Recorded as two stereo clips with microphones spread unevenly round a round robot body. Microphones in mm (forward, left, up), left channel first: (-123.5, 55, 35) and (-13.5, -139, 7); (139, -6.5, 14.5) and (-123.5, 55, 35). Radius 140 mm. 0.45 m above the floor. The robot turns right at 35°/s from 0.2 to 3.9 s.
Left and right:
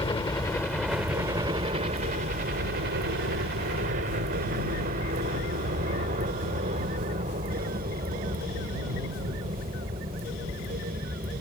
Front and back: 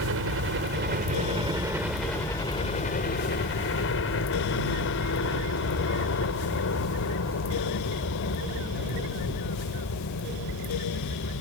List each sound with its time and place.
0.0 s a helicopter: 175° right; by 11.4 s 10° left